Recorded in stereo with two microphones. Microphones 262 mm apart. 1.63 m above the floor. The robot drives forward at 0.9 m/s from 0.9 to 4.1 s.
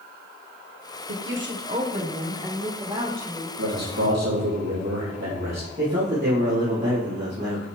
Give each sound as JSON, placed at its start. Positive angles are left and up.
{"t": 1.1, "sound": "a woman speaking", "side_deg": -60, "distance_m": 1.0}
{"t": 3.6, "sound": "a man speaking", "side_deg": -75, "distance_m": 2.5}
{"t": 5.8, "sound": "a man speaking", "side_deg": -45, "distance_m": 2.5}